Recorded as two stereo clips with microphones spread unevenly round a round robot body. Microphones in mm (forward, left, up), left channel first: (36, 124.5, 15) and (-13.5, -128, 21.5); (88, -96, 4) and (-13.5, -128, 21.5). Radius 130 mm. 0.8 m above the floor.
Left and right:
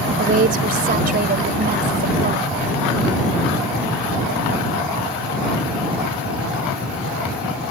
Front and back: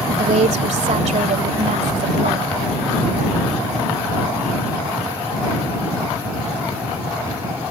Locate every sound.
0.2 s a woman speaking: 160° right